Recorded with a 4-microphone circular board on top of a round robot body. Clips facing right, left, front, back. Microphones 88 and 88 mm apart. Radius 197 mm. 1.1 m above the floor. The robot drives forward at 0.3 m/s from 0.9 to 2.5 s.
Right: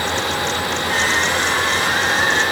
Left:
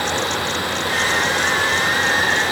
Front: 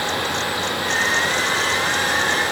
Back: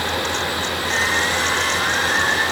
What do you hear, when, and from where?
Only background noise.